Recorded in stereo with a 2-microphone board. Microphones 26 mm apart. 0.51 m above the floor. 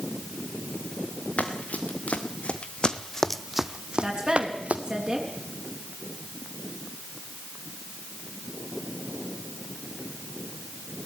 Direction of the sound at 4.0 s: 15° right (ahead or behind).